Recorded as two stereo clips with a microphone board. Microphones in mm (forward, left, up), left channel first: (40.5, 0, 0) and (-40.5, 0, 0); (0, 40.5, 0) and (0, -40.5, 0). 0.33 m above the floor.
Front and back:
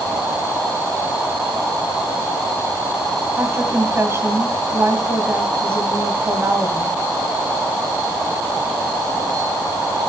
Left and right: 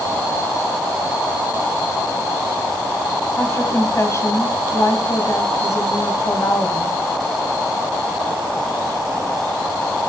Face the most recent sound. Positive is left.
turn(degrees=130)